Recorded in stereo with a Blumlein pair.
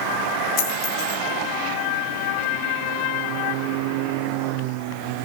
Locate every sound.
0.6 s a dropped coin: 30° left, 6 m